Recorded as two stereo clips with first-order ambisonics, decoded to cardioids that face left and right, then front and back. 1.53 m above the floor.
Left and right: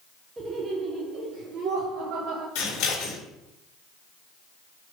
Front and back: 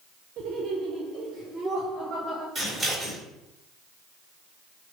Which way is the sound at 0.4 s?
160° right.